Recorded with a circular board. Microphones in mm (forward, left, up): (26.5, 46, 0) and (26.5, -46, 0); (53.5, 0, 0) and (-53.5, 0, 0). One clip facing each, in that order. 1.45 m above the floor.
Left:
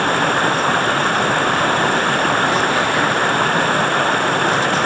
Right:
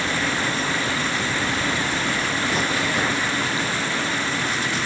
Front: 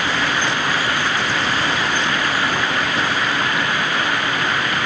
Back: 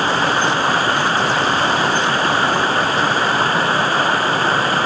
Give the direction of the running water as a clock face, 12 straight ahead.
8 o'clock.